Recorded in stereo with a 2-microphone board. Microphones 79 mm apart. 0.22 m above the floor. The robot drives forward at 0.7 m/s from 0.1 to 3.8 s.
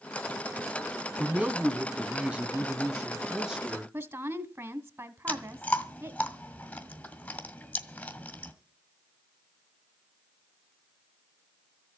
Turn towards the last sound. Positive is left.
turn(degrees=15)  # may be behind; listen again after turning